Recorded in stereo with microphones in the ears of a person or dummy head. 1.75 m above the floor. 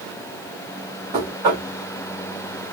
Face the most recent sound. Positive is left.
turn(degrees=-25)  # may be behind; listen again after turning